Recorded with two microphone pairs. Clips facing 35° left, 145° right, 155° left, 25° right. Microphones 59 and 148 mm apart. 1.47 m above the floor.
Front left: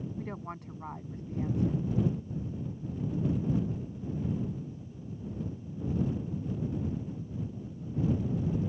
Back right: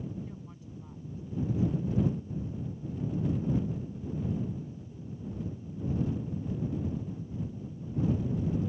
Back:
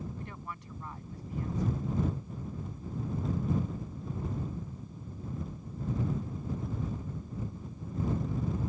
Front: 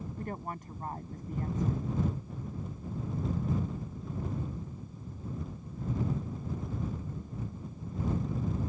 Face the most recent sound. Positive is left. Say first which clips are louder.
# front left 4 dB, front 5 dB
turn(degrees=15)